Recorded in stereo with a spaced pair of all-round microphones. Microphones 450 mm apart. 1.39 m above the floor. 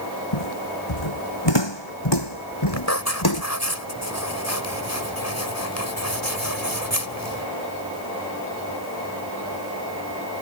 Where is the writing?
35° left (ahead or behind).